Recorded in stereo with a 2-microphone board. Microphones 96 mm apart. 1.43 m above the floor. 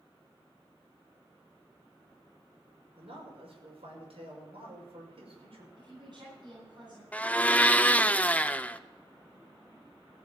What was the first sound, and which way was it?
A man speaking, 80° right.